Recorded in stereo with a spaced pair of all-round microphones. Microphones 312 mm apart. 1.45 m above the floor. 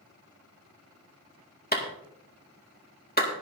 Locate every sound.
1.7 s a clap: 30° left (ahead or behind), 2.0 m